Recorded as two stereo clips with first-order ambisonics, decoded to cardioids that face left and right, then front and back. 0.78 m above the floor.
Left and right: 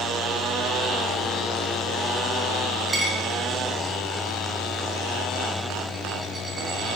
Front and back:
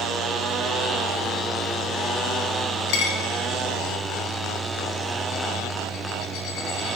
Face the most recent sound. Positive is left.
turn(degrees=-10)